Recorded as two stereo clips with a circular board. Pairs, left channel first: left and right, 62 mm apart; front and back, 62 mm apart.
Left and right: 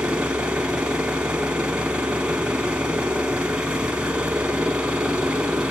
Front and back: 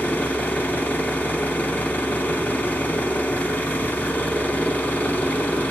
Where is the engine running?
30° right, 1.2 m.